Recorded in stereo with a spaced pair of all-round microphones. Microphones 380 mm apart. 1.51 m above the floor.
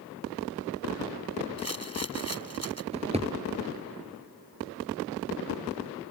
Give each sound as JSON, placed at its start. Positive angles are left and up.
{"t": 1.6, "sound": "a rattle", "side_deg": -40}
{"t": 2.9, "sound": "a drawer", "side_deg": -15}